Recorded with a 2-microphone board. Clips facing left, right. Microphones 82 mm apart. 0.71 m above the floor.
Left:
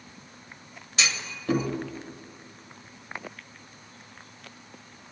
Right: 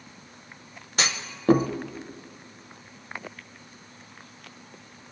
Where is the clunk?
45° right (ahead or behind), 0.6 m.